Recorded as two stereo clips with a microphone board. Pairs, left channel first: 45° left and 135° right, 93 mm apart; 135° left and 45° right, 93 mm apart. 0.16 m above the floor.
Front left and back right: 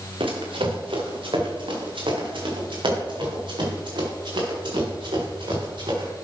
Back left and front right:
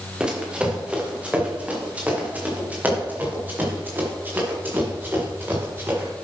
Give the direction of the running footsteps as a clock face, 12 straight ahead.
4 o'clock.